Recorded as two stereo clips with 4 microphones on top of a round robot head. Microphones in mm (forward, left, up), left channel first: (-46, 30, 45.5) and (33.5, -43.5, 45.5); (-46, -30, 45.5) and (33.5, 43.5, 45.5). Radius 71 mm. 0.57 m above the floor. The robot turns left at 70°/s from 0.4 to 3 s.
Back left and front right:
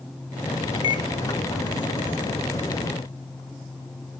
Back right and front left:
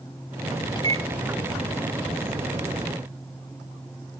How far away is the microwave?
About 1.5 m.